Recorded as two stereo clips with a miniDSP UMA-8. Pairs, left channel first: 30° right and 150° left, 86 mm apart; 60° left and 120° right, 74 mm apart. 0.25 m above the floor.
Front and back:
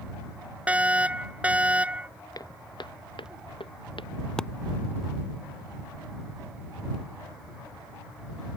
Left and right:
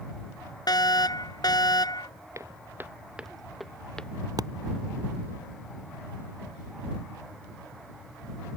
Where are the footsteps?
75° right; by 4.1 s 15° right.